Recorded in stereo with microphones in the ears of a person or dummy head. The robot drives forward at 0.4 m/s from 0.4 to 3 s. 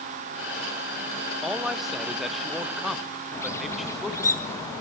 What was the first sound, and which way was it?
A man speaking, centre (ahead or behind).